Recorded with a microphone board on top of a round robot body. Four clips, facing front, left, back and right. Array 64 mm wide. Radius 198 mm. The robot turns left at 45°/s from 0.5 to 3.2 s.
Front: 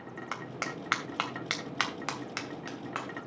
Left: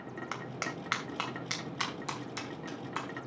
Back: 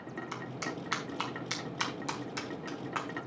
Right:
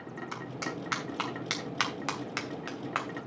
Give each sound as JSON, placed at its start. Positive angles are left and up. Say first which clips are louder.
{"t": 0.3, "sound": "a clap", "louder": "right 1 dB, front 3 dB", "azimuth_deg": 30, "distance_m": 3.0}